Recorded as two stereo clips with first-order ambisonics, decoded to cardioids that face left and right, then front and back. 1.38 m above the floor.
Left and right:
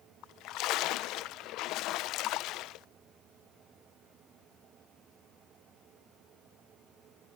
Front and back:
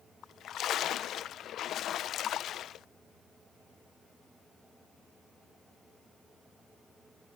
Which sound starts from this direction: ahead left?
A splash, at 0.2 s.